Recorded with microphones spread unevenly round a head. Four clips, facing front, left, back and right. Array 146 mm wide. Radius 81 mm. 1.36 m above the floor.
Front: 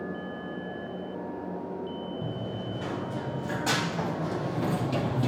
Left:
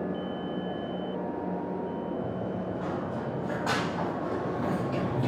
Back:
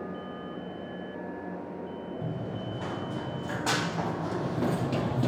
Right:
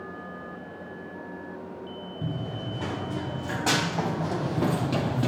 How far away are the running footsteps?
About 5 m.